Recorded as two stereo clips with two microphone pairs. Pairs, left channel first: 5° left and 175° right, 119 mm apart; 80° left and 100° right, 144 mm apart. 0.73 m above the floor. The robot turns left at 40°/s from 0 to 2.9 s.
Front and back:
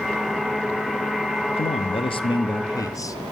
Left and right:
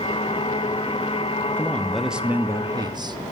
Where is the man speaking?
5° left, 0.6 m; by 3.2 s 50° right, 0.6 m.